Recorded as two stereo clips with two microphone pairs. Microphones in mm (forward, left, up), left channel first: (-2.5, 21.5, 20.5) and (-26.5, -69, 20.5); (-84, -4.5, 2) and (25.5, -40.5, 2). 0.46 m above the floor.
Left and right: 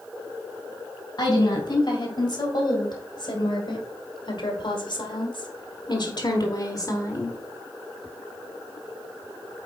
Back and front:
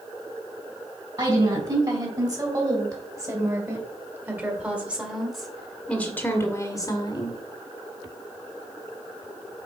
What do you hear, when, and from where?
1.2 s a woman speaking: 35° left, 3.5 m; by 7.4 s 130° left, 1.4 m